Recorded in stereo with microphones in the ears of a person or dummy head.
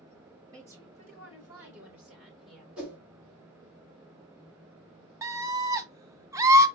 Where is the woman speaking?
20° right (ahead or behind), 3.5 m; by 2.7 s centre (ahead or behind), 3.5 m.